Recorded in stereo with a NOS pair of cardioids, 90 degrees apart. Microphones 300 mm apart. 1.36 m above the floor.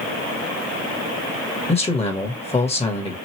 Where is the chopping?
I don't hear chopping.